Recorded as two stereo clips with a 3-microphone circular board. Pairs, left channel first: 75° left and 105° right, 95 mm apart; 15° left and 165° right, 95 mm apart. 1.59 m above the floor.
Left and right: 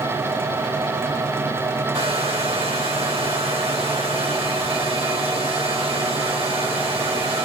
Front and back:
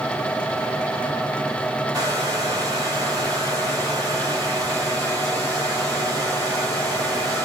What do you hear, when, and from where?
1.9 s a hair dryer: 110° right, 2.5 m